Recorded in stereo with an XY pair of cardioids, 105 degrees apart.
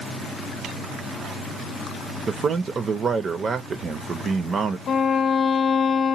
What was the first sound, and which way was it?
A man speaking, 45° right.